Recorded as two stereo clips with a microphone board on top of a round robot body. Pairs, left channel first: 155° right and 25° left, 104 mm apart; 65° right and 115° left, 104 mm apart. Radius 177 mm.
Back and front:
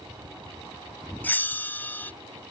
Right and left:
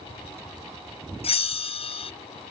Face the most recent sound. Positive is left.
turn(degrees=-85)